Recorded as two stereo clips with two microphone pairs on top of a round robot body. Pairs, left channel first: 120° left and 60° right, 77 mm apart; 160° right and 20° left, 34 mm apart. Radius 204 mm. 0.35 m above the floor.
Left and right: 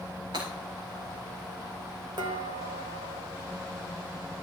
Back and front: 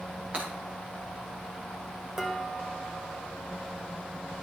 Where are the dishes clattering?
55° right, 1.6 m.